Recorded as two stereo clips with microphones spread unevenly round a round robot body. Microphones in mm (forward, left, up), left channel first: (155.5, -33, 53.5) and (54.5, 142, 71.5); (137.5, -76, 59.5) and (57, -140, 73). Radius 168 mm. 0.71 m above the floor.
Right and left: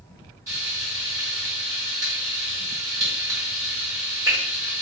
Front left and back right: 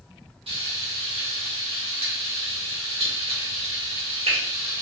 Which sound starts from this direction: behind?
Frying, at 0.5 s.